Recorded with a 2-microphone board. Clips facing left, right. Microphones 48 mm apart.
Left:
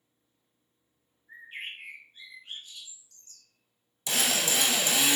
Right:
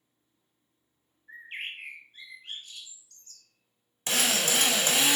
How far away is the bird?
About 1.2 m.